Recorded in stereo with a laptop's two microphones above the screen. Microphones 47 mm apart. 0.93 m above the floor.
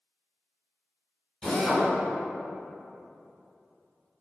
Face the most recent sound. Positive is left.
turn(degrees=10)  # may be behind; listen again after turning